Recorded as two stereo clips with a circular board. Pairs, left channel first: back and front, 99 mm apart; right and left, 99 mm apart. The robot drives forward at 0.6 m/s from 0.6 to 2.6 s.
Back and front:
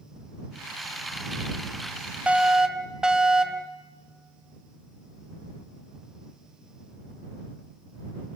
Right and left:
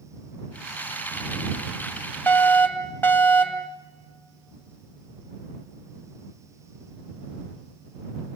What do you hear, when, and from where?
2.3 s a fire alarm: 60° right, 2 m; by 3.7 s 75° right, 2 m